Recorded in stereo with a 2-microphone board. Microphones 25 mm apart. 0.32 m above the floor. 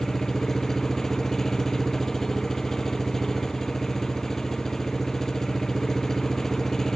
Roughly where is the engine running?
Centre.